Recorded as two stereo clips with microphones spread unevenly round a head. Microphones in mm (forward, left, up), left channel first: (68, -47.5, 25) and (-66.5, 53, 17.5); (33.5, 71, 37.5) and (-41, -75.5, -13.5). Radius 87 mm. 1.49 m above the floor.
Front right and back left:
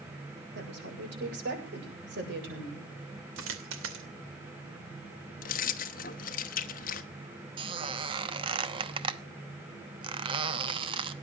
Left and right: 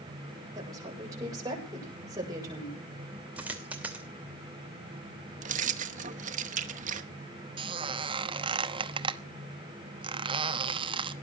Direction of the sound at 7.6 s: 175° left.